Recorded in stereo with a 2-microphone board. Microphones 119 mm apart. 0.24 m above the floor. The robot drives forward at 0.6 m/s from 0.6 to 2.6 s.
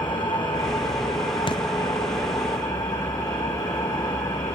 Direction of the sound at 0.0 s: 40° left (ahead or behind).